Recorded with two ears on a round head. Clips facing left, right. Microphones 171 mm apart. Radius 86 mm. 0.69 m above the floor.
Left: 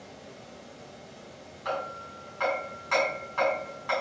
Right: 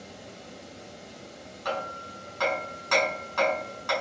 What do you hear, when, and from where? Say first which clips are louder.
0.0 s running water: right 2 dB; 65° right (ahead or behind), 2.5 m
1.6 s hammering: right 1 dB; 55° right (ahead or behind), 5.5 m